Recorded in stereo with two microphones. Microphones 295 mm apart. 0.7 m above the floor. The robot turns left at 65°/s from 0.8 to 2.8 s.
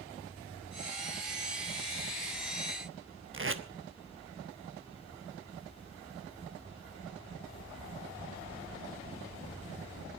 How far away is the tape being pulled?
About 1.1 m.